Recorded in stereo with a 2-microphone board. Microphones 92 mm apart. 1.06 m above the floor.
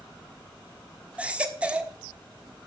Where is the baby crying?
15° right (ahead or behind), 1.3 m.